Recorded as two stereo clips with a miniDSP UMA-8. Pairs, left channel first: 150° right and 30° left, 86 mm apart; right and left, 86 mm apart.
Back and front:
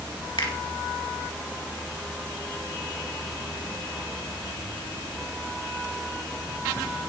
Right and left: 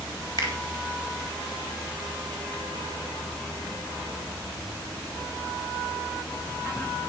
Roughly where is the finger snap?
Behind right.